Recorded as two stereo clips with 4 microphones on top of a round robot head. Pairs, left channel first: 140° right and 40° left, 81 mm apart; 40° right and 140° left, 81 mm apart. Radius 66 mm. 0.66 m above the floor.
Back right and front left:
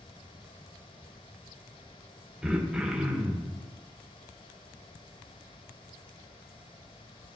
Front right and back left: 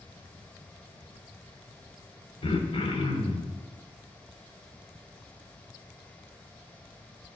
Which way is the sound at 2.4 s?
40° right.